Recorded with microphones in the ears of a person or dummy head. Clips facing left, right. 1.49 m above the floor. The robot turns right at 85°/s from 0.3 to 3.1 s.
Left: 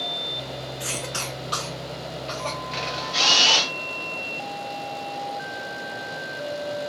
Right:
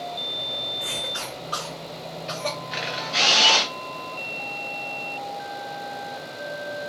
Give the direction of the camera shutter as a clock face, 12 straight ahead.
6 o'clock.